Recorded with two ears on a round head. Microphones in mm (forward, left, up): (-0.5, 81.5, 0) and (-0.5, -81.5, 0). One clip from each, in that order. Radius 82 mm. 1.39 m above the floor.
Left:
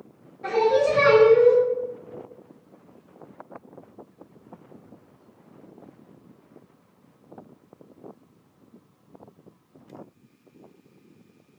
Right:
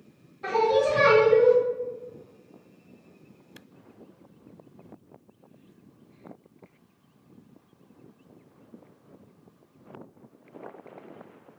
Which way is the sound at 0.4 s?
30° right (ahead or behind).